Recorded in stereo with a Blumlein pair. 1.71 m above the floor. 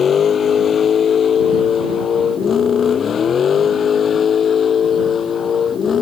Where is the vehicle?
20° left.